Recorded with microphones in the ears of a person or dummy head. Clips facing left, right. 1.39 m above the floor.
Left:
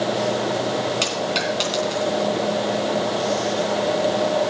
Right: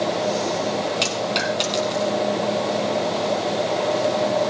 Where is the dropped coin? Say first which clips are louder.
Even; 5° left (ahead or behind), 3 m.